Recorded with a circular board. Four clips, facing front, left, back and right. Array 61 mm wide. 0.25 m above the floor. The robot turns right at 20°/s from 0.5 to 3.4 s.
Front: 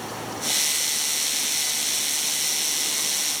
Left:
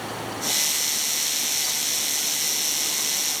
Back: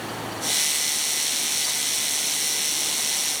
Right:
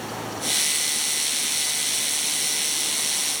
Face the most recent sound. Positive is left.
No sound to turn to.